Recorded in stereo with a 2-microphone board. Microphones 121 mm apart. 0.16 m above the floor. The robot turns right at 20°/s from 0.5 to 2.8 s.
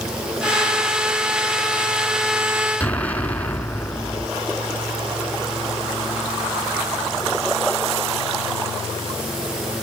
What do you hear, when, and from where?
2.8 s an explosion: 15° left (ahead or behind), 1.4 m